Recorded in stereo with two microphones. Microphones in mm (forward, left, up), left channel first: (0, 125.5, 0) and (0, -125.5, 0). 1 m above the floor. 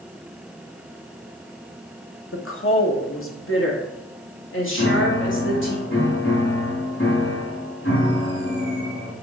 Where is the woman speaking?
55° left (ahead or behind), 1.0 m.